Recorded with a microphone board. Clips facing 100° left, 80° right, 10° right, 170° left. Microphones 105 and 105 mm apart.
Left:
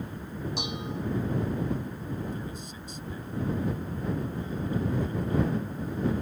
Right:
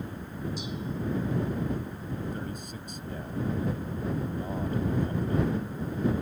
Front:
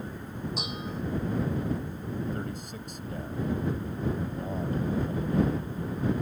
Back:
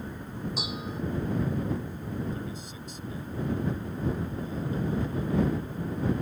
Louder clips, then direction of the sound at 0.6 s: Left 1 dB, even; 80° left.